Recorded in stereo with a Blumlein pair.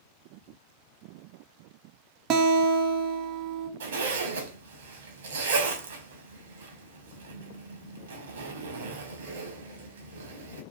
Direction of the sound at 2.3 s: 35° right.